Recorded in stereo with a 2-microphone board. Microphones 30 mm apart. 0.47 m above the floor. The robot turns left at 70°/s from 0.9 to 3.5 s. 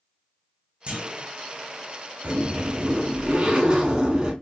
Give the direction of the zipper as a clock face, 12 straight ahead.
2 o'clock.